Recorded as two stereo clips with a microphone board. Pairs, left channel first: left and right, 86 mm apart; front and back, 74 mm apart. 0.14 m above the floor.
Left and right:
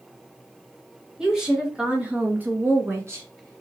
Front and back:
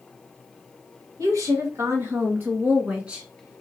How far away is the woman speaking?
About 2.5 m.